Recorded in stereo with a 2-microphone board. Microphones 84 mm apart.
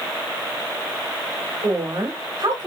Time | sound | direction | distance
1.6 | a woman speaking | 55° right (ahead or behind) | 1.4 m